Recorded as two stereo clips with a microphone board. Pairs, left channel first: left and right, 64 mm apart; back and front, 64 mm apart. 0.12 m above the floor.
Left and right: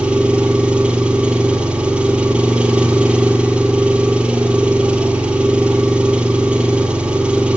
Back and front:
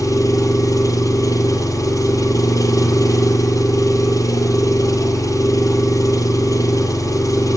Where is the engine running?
160° right, 1.7 m.